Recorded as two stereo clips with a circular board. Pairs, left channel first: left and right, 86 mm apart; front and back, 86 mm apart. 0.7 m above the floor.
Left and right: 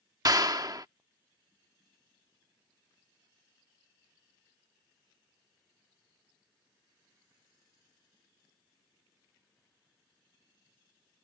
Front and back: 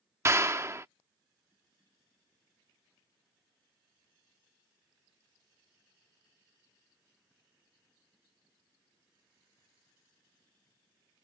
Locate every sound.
0.2 s a clap: 125° right